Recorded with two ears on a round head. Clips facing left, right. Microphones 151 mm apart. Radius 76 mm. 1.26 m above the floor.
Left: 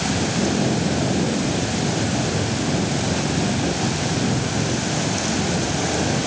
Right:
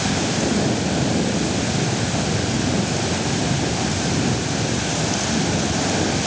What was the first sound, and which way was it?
Only background noise.